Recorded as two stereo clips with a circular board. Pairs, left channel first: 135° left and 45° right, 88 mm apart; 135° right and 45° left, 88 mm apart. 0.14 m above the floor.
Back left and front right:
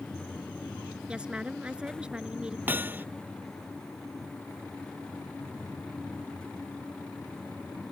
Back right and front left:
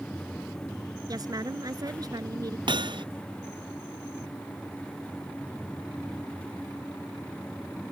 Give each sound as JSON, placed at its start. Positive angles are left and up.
{"t": 1.1, "sound": "a woman speaking", "azimuth_deg": 30}
{"t": 2.7, "sound": "hammering", "azimuth_deg": 20}